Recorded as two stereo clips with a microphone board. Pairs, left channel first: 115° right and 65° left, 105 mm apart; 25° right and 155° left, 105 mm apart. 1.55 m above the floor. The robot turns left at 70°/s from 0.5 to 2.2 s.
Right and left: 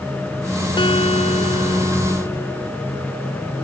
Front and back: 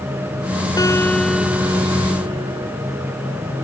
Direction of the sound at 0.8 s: 75° right.